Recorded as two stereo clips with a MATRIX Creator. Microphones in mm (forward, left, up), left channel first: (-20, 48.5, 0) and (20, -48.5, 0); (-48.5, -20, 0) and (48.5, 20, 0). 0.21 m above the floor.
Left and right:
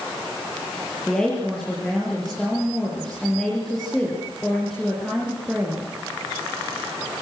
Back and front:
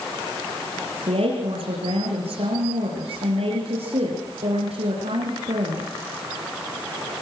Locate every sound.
1.1 s a woman speaking: 25° left, 5 m